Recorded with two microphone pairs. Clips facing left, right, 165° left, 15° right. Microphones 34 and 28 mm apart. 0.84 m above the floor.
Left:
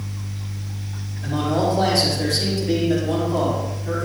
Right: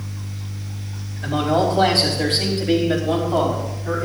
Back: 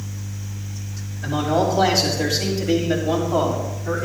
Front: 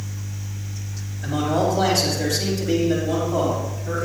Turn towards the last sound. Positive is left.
turn(degrees=-145)